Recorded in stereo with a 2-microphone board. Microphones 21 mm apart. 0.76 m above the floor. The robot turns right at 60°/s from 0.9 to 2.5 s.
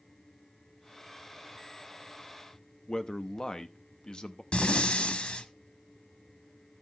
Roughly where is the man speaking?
Left.